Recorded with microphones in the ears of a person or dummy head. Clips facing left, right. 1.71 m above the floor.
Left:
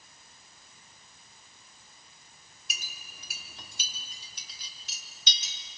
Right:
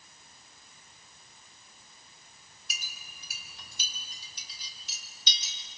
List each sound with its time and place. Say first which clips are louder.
2.7 s a clink: left 2 dB; 60° left (ahead or behind), 3 m